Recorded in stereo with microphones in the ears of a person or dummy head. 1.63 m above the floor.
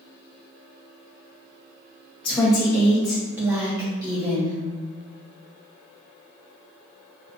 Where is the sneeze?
I don't hear a sneeze.